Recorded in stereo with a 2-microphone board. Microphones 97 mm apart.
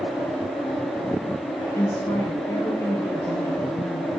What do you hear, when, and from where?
1.8 s a woman speaking: 25° left (ahead or behind), 5.5 m; by 4.1 s 45° left (ahead or behind), 5 m